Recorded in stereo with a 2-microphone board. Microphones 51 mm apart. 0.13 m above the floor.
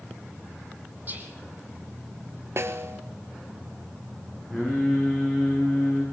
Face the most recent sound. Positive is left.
turn(degrees=-5)  # may be behind; listen again after turning